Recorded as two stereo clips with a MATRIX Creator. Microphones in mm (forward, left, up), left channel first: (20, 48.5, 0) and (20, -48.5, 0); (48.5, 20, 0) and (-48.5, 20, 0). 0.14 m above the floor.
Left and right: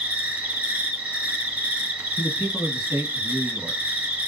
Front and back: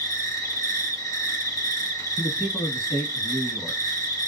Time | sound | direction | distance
0.0 | an insect | 25° right | 1.8 m
2.2 | a man speaking | 10° left | 1.2 m